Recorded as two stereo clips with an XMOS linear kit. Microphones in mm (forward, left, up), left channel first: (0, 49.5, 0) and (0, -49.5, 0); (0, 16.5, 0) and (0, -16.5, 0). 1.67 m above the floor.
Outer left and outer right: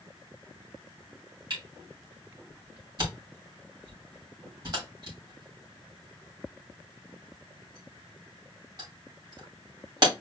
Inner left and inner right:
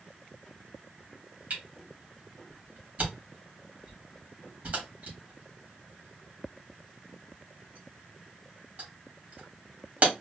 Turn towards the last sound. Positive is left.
turn(degrees=-50)  # may be behind; listen again after turning